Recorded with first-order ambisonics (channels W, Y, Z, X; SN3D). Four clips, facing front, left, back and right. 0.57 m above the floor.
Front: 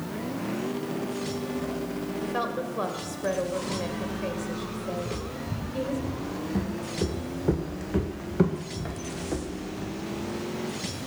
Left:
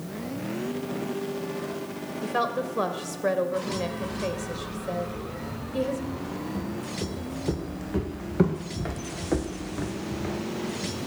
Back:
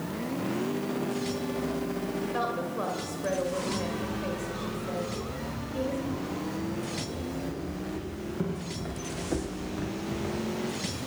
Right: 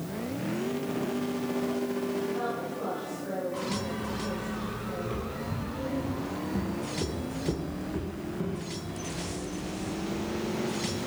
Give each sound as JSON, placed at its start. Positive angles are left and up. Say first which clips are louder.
{"t": 2.2, "sound": "a woman speaking", "louder": "left 4 dB, front 2 dB", "azimuth_deg": 75, "distance_m": 2.0}
{"t": 5.0, "sound": "footsteps", "louder": "even, front 1 dB", "azimuth_deg": -20, "distance_m": 4.5}